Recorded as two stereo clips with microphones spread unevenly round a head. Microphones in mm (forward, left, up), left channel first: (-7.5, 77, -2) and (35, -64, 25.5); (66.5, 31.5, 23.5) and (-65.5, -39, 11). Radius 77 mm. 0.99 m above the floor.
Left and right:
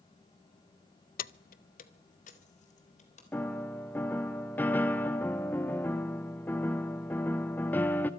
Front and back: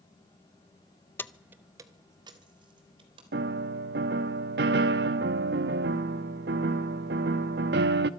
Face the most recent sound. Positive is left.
turn(degrees=-170)